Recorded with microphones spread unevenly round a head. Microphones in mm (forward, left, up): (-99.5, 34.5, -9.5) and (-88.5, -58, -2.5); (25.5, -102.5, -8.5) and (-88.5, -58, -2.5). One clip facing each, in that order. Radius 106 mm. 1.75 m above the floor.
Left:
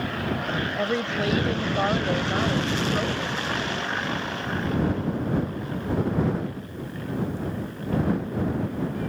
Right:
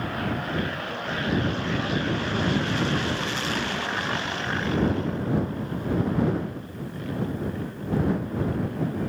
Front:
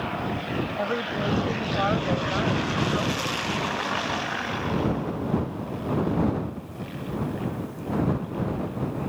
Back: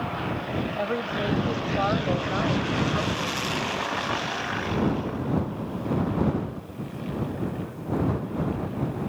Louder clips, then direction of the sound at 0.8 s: Left 5 dB, even; 70° left.